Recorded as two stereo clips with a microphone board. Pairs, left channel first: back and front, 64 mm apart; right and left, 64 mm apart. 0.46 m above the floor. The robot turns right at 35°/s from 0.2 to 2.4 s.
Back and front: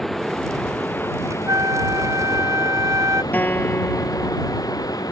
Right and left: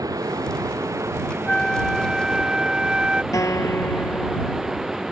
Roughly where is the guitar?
Behind right.